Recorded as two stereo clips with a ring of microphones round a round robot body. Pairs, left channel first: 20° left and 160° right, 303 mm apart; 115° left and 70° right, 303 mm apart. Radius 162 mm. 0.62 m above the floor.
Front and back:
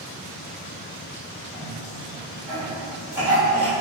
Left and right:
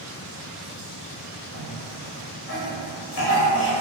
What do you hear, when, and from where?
1.5 s a cough: 125° left, 1.1 m